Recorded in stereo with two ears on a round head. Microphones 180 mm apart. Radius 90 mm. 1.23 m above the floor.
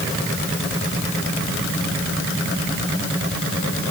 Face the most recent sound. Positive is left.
No sound to turn to.